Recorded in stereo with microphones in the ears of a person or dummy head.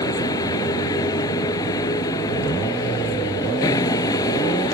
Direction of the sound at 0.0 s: 20° left (ahead or behind).